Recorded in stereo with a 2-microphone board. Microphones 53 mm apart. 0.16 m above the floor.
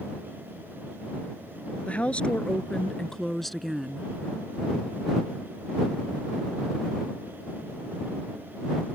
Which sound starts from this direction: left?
A woman speaking, at 1.9 s.